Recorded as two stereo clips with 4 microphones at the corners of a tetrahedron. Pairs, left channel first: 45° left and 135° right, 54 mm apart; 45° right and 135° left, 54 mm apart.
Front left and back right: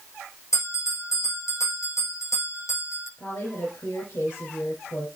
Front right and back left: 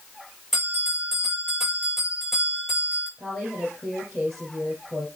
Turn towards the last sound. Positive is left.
turn(degrees=40)